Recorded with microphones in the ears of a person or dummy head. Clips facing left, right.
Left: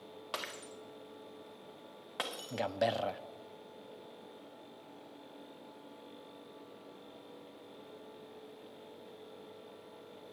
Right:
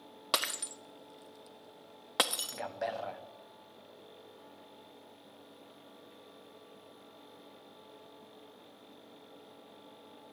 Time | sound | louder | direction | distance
0.3 | breaking glass | right 6 dB | 70° right (ahead or behind) | 0.7 m
2.5 | a man speaking | left 5 dB | 40° left (ahead or behind) | 0.5 m